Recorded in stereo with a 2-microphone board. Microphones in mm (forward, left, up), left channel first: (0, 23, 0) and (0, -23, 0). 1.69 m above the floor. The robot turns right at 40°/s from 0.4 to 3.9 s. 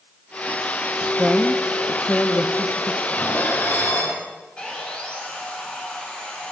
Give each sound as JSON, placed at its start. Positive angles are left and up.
{"t": 1.2, "sound": "a woman speaking", "azimuth_deg": -5, "distance_m": 0.7}
{"t": 3.1, "sound": "dishes clattering", "azimuth_deg": 70, "distance_m": 5.0}
{"t": 4.6, "sound": "sawing", "side_deg": 25, "distance_m": 4.0}